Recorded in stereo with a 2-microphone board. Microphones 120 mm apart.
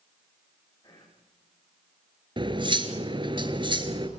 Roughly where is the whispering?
Left.